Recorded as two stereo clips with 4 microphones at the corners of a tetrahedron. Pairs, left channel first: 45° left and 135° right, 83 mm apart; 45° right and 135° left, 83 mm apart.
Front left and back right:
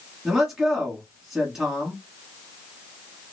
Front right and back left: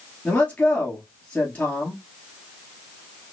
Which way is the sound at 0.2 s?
65° right.